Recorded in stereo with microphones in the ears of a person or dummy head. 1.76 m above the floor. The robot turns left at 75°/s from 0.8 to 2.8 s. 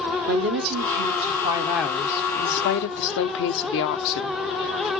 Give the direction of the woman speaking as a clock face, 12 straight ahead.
4 o'clock.